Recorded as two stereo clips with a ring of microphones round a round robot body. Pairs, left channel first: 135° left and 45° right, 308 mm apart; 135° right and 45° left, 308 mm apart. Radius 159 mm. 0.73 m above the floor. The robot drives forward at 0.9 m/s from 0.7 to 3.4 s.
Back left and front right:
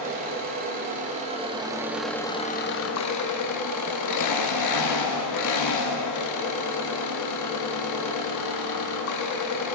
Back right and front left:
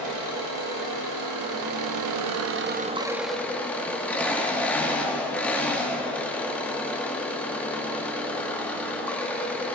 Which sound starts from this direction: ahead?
An engine running, at 0.0 s.